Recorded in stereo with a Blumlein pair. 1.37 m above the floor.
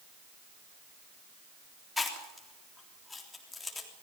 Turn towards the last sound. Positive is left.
turn(degrees=10)